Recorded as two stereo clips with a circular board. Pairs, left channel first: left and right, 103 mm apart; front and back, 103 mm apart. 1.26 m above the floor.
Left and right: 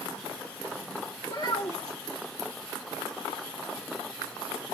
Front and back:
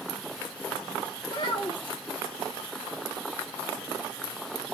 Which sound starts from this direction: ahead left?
A child speaking, at 1.2 s.